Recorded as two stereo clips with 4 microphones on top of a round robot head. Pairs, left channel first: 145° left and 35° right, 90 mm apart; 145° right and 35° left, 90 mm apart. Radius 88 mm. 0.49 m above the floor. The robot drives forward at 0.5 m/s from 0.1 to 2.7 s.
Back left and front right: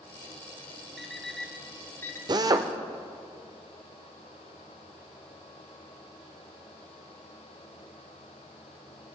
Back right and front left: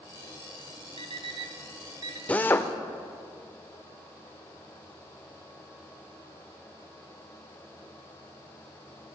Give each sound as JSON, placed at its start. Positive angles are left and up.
{"t": 1.0, "sound": "an alarm clock", "azimuth_deg": 55, "distance_m": 1.3}
{"t": 2.3, "sound": "a drill", "azimuth_deg": -70, "distance_m": 0.8}